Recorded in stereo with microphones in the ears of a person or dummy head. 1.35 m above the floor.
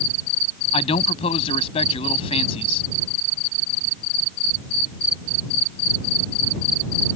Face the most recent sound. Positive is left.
turn(degrees=25)  # may be behind; listen again after turning